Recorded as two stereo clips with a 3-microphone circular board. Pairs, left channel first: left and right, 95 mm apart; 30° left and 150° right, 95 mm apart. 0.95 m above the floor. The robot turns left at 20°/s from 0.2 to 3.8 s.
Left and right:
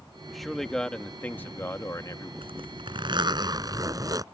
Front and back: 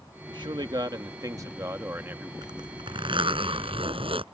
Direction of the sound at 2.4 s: 110° right.